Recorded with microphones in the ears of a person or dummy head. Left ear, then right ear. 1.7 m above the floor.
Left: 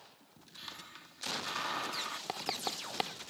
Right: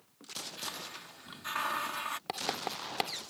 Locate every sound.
0.6 s a hiss: 25° right (ahead or behind)
2.3 s writing: 5° right (ahead or behind)